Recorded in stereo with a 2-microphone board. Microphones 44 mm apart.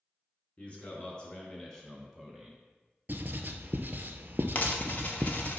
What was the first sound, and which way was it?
A man speaking, 30° left (ahead or behind).